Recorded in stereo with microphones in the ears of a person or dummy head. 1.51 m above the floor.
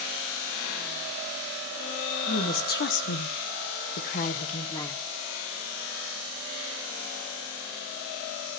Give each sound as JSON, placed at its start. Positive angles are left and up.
{"t": 2.3, "sound": "a woman speaking", "side_deg": 45, "distance_m": 1.6}